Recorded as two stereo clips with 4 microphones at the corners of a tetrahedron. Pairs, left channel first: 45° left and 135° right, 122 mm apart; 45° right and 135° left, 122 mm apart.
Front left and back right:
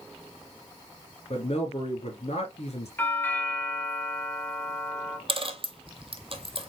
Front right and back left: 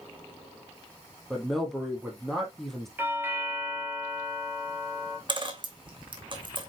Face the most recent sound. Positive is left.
turn(degrees=-175)